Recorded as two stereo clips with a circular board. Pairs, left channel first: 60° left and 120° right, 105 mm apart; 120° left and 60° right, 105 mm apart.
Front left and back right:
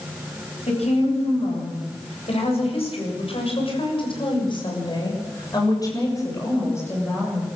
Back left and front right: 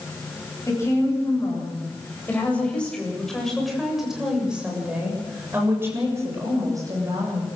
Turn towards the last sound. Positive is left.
turn(degrees=-10)